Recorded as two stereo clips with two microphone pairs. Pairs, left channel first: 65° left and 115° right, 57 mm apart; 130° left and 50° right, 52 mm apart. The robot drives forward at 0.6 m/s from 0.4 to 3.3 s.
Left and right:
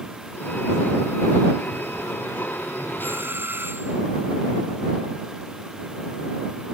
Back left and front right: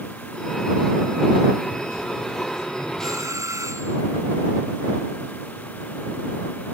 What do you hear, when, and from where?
3.0 s a doorbell: 65° right